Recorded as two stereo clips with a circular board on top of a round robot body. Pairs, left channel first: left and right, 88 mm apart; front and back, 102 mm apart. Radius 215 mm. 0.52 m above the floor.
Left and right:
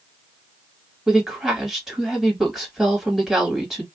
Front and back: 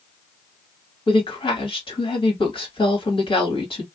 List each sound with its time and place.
1.1 s a woman speaking: 5° right, 1.8 m